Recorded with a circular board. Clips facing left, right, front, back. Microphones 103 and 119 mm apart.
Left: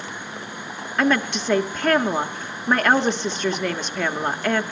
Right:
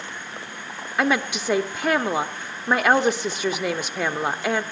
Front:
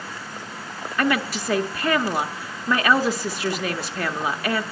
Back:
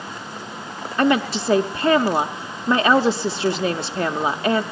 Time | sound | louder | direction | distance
1.0 | a woman speaking | left 2 dB, back 4 dB | 165° right | 0.8 m